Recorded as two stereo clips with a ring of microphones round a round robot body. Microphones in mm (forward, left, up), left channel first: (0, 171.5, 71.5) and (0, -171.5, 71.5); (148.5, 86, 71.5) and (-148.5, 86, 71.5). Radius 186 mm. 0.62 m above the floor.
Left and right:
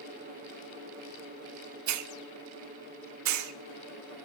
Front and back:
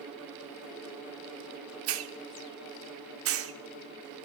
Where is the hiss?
130° right, 0.8 m.